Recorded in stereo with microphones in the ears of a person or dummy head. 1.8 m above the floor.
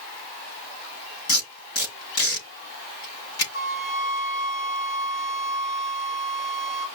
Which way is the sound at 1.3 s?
80° left.